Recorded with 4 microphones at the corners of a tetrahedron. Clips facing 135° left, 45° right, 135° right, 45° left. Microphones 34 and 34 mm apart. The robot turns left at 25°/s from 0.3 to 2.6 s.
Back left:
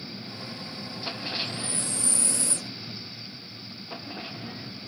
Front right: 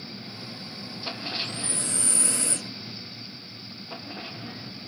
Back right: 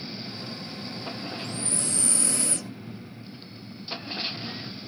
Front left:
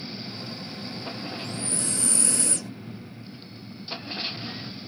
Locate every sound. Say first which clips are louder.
1.4 s breathing: even, even; 30° right, 2 m; by 2.7 s 60° right, 2 m